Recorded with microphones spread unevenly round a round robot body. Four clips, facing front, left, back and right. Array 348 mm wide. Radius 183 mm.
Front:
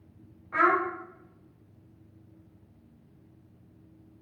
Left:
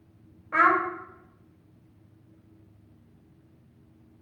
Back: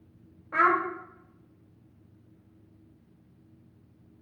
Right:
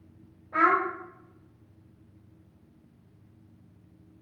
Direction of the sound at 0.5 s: 130° left.